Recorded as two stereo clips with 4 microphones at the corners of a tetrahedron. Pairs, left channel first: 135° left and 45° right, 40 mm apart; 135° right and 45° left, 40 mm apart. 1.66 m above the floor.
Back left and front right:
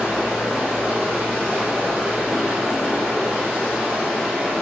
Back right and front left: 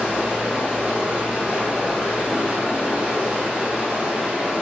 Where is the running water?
10° right, 1.6 m.